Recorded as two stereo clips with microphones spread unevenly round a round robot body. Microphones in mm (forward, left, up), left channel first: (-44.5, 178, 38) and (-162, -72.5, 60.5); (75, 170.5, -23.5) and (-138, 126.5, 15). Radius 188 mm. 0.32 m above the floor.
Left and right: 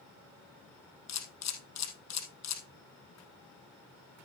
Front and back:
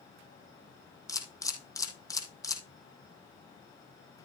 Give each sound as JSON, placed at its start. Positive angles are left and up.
{"t": 1.1, "sound": "a camera shutter", "azimuth_deg": 90, "distance_m": 3.5}